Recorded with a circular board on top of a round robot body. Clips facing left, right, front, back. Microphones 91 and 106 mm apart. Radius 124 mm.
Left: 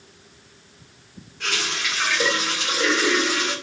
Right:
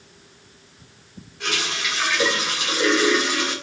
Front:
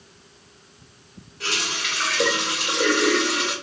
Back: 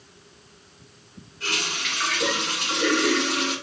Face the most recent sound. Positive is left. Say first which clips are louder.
# right 1 dB, front 1 dB
turn(degrees=-5)